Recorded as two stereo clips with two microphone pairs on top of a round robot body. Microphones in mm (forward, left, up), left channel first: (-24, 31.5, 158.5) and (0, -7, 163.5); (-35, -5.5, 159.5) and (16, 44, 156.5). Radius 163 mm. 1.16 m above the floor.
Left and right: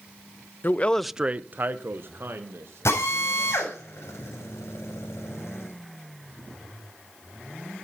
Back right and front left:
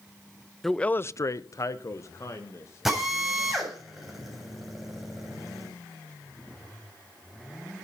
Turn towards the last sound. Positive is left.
turn(degrees=130)